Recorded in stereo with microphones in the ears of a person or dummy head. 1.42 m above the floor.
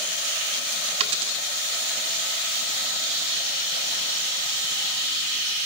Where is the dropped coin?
30° right (ahead or behind), 1.7 m.